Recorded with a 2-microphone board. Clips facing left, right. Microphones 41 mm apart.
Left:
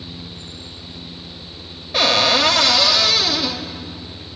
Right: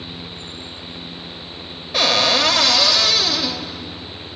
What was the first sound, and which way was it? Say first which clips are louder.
A cupboard door: left 1 dB; centre (ahead or behind).